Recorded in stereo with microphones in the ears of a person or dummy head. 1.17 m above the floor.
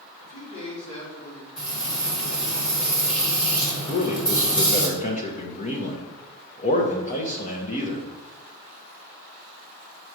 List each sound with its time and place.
0.2 s a man speaking: 35° left (ahead or behind), 3 m
1.6 s frying: 60° left (ahead or behind), 2 m
3.9 s a man speaking: 35° left (ahead or behind), 0.9 m